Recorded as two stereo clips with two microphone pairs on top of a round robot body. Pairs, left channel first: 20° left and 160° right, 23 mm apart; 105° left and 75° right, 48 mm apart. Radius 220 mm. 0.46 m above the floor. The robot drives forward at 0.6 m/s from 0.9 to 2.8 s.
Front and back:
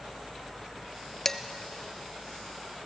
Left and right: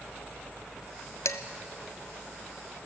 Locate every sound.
1.2 s dishes clattering: 95° left, 1.0 m; by 1.4 s 100° left, 1.0 m